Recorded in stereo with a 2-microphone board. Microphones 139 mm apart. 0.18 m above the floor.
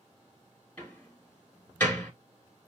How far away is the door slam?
About 1.7 m.